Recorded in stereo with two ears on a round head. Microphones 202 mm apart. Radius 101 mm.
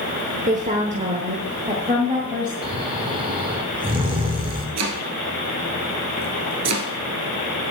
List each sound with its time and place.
0.5 s a woman speaking: 35° right (ahead or behind), 1.0 m; by 2.5 s 25° right (ahead or behind), 2 m
2.6 s snoring: 20° right (ahead or behind), 1.2 m
4.8 s chopping: 80° right, 1.2 m